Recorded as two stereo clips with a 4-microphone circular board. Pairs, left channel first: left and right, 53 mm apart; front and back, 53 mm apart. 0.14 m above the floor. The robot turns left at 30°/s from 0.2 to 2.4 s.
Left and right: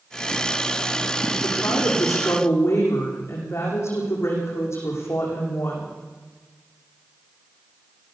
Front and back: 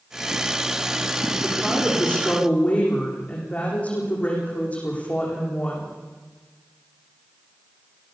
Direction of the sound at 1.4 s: 90° left.